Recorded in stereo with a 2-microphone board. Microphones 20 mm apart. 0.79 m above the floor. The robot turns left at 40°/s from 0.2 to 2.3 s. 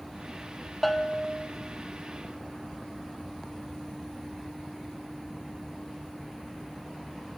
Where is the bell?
10° left (ahead or behind), 1.4 m; by 1.5 s 15° right (ahead or behind), 1.4 m.